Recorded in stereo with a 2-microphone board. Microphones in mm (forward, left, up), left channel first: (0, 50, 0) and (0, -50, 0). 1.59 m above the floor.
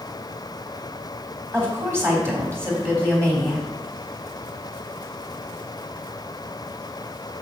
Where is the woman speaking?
25° right (ahead or behind), 3.5 m.